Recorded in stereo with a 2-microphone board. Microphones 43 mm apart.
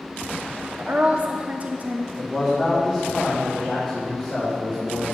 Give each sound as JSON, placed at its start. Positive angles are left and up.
{"t": 0.8, "sound": "a woman speaking", "side_deg": -35, "distance_m": 0.8}
{"t": 2.2, "sound": "a man speaking", "side_deg": 0, "distance_m": 2.5}